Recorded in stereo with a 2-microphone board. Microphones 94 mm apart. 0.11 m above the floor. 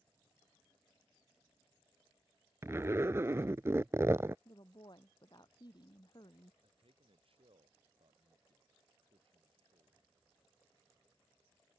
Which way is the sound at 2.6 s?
25° right (ahead or behind).